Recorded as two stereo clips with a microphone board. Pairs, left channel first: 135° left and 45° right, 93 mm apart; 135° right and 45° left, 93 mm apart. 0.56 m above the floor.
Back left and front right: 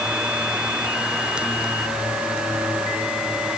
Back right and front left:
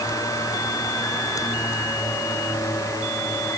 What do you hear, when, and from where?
Only background noise.